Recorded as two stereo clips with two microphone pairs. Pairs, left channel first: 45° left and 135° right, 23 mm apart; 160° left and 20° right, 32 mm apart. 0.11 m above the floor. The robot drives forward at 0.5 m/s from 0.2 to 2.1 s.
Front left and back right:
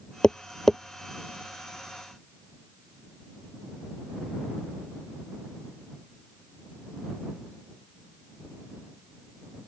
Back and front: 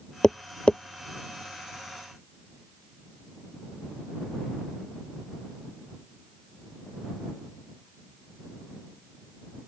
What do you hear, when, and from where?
0.2 s tapping: 95° left; by 0.8 s 120° left